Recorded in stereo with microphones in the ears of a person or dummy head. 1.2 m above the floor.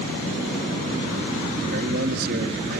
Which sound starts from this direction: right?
A man speaking, at 1.7 s.